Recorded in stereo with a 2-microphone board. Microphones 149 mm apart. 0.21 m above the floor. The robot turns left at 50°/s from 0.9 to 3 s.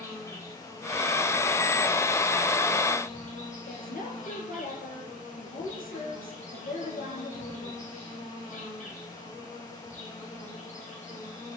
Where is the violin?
No violin in this recording.